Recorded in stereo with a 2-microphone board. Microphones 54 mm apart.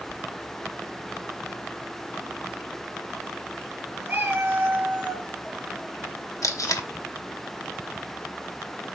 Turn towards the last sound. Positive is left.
turn(degrees=75)  # may be behind; listen again after turning